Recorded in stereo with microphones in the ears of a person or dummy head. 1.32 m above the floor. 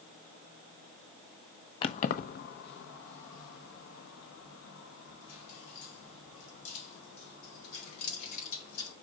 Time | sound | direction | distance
1.8 | keys jangling | 30° left (ahead or behind) | 0.5 m